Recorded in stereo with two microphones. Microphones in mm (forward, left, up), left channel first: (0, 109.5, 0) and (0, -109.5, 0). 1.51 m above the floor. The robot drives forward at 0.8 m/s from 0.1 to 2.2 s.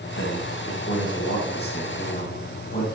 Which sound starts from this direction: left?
A man speaking, at 0.2 s.